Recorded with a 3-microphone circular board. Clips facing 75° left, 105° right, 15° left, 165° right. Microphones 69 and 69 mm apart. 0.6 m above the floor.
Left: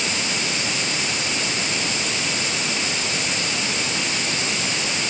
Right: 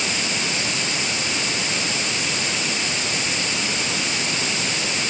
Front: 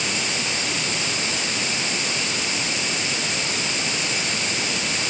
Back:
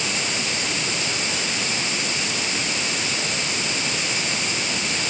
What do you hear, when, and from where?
Only background noise.